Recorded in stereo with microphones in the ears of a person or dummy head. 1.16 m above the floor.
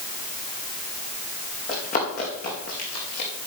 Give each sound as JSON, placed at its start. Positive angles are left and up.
{"t": 1.7, "sound": "running footsteps", "side_deg": 40, "distance_m": 4.5}